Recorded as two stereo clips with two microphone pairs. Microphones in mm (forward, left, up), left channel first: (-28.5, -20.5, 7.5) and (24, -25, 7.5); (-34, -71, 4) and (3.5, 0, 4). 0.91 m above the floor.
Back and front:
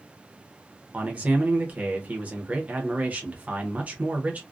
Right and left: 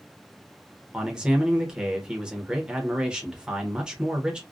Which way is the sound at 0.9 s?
15° right.